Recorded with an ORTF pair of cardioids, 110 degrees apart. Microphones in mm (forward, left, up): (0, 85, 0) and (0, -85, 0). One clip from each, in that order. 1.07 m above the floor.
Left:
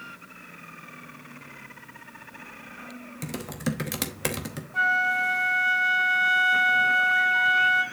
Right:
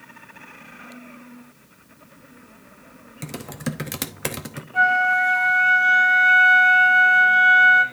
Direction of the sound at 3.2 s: 5° right.